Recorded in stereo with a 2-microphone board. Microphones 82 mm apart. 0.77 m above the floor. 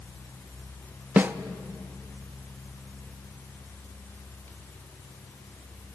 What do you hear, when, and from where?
1.2 s a snare drum: 25° right (ahead or behind), 0.6 m